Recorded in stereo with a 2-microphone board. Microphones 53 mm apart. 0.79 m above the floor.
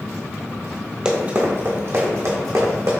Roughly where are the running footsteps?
Right.